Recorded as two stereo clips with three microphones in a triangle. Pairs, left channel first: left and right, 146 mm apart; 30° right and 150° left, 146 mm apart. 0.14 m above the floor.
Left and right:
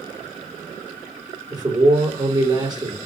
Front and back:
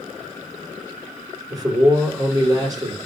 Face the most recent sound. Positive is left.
turn(degrees=-145)